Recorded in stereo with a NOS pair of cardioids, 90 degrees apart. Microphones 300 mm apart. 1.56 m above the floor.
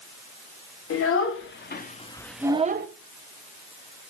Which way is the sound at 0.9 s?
55° left.